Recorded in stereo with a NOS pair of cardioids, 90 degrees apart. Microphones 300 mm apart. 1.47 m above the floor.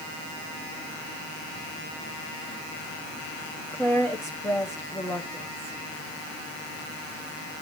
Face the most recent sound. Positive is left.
turn(degrees=5)